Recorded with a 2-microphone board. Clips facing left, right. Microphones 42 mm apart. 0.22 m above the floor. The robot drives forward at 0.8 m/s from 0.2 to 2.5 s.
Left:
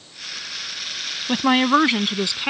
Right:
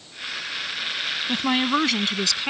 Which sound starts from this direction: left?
A woman speaking, at 1.3 s.